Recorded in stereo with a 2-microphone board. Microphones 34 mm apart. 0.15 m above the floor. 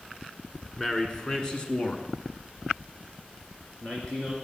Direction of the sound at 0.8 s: 15° left (ahead or behind).